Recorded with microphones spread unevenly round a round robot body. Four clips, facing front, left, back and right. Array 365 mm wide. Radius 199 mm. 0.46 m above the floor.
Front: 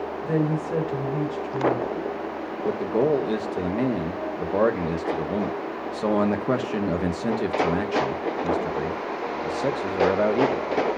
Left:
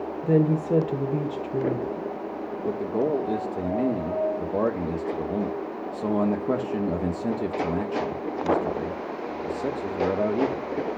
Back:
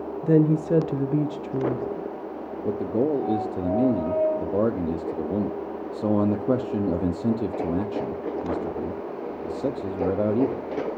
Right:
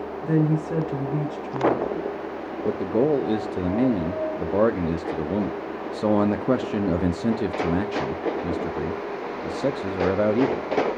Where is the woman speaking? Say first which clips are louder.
Left 1 dB, back 6 dB; 155° left, 1.3 m.